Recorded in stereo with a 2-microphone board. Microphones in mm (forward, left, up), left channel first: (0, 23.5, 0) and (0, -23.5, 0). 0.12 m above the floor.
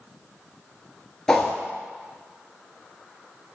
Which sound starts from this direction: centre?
A whoosh, at 1.3 s.